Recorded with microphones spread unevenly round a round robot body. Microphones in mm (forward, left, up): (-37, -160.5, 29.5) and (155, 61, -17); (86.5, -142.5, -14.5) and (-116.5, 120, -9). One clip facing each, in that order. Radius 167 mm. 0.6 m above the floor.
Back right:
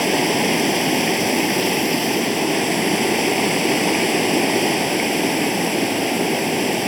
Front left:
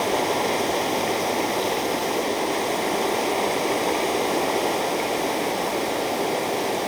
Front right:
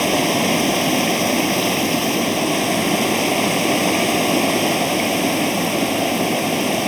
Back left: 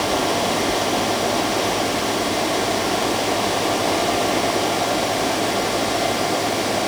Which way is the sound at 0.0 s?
95° right.